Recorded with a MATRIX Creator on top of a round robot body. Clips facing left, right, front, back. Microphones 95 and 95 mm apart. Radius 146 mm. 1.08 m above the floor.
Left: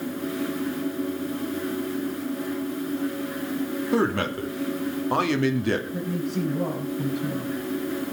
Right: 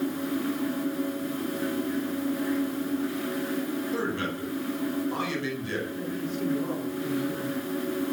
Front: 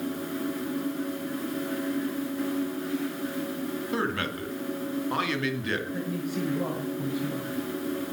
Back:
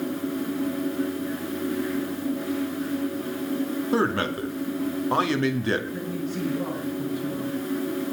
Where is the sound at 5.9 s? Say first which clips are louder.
Left 4 dB, back 1 dB; 75° left, 10 m.